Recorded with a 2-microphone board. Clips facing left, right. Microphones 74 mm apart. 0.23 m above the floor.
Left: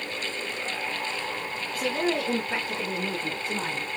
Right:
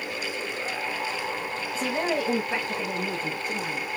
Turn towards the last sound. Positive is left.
turn(degrees=40)  # may be behind; listen again after turning